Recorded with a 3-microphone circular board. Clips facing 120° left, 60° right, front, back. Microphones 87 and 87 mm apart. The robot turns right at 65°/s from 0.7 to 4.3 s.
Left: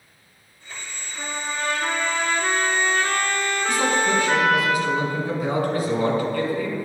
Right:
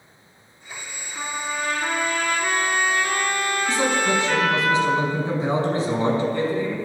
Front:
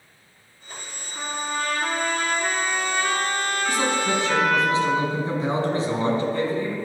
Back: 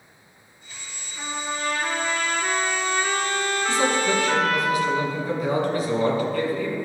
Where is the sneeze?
No sneeze in this recording.